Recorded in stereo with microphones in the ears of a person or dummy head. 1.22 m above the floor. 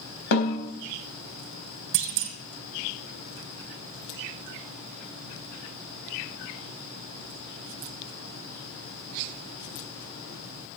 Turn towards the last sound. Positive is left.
turn(degrees=-60)  # may be behind; listen again after turning